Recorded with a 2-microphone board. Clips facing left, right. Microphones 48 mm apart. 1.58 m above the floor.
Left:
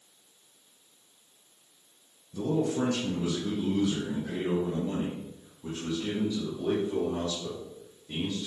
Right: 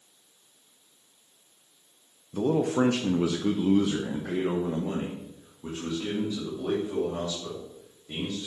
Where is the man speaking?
50° right (ahead or behind), 1.1 m; by 8.5 s 15° right (ahead or behind), 4.5 m.